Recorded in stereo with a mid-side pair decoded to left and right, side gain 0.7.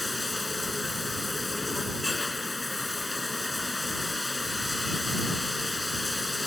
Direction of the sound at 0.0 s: 15° left.